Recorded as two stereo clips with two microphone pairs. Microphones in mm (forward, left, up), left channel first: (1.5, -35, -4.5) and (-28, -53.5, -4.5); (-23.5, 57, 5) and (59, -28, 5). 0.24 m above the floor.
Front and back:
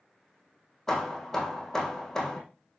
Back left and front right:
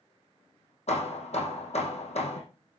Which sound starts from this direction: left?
Hammering, at 0.9 s.